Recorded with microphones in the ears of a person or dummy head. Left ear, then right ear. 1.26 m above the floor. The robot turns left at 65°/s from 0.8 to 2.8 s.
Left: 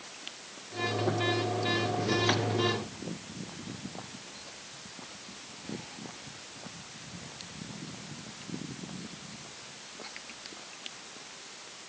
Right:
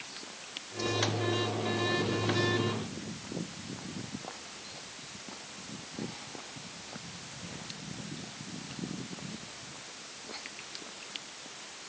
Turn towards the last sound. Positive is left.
No sound to turn to.